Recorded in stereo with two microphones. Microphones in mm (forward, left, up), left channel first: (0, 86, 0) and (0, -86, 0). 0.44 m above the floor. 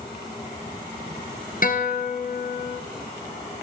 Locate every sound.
1.6 s a guitar: 55° left (ahead or behind), 1.3 m